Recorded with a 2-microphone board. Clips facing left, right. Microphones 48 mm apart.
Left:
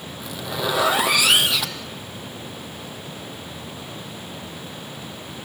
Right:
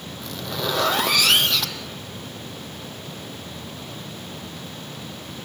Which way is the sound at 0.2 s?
10° left (ahead or behind).